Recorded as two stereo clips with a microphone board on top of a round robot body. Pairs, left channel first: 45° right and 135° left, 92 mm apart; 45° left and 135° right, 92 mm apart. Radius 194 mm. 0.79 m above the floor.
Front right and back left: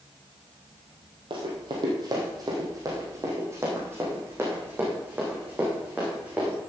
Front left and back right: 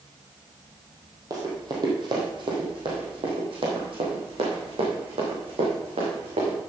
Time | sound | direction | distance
1.3 | running footsteps | 170° left | 2 m